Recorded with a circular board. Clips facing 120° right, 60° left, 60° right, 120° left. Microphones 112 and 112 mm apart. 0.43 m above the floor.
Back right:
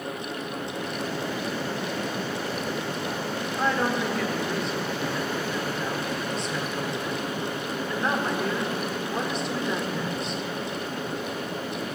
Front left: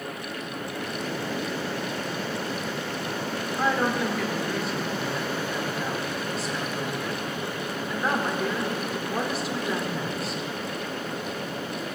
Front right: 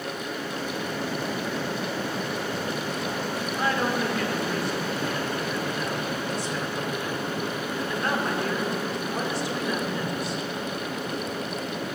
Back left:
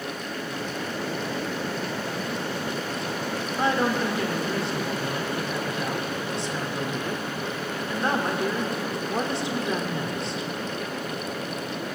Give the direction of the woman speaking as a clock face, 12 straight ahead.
7 o'clock.